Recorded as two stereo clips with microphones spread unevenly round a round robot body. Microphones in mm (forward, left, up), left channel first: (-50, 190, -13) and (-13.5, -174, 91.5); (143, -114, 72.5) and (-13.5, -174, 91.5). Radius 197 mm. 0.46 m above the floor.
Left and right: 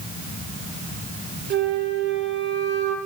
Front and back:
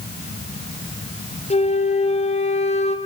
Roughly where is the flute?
Ahead.